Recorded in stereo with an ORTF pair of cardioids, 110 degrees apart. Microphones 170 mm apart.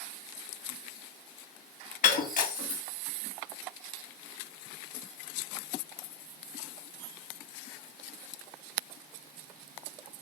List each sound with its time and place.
2.0 s breaking glass: 55° left, 1.6 m